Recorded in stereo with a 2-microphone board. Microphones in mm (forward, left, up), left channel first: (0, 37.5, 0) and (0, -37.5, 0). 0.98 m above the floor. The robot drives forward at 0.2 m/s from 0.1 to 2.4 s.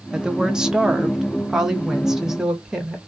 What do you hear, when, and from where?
0.1 s a woman speaking: 10° right (ahead or behind), 0.5 m; by 3.0 s 5° right (ahead or behind), 0.9 m